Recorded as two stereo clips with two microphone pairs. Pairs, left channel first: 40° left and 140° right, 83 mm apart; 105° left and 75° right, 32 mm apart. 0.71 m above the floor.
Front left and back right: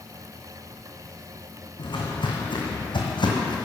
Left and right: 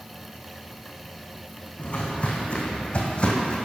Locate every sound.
1.8 s footsteps: 60° left, 2.5 m; by 3.5 s 55° left, 1.8 m